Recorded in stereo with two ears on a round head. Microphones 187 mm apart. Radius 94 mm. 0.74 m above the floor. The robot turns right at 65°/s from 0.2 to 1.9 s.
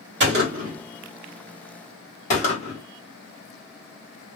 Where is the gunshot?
60° right (ahead or behind), 1.5 m; by 2.8 s 35° left (ahead or behind), 1.5 m.